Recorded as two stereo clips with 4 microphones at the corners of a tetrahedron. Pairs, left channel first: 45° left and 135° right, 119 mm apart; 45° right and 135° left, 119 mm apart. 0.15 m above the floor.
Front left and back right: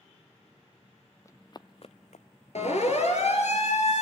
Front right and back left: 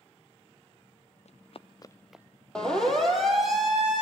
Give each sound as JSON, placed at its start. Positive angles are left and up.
{"t": 1.2, "sound": "running footsteps", "azimuth_deg": -20, "distance_m": 1.2}
{"t": 2.5, "sound": "a siren", "azimuth_deg": 40, "distance_m": 5.0}